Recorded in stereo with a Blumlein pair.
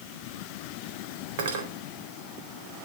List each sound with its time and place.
1.4 s cutlery clinking: 55° right, 4 m